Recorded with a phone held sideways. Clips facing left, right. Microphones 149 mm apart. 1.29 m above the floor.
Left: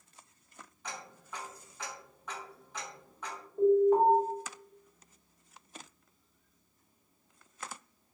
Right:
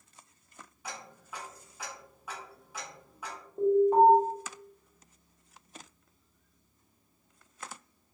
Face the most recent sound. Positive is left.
turn(degrees=-15)  # may be behind; listen again after turning